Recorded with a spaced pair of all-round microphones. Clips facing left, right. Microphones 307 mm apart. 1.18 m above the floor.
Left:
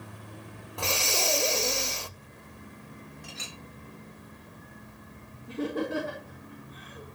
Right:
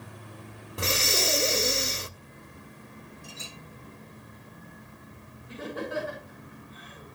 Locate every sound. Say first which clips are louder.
0.8 s breathing: right 2 dB; 20° right (ahead or behind), 0.6 m
3.2 s a clink: even; 75° left (ahead or behind), 1.6 m
5.5 s laughter: left 5 dB; 55° left (ahead or behind), 4 m